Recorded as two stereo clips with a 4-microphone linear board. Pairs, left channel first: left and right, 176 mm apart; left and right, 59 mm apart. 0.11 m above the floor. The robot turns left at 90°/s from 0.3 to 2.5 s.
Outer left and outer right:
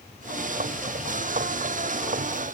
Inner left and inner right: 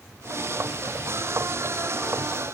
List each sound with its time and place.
Only background noise.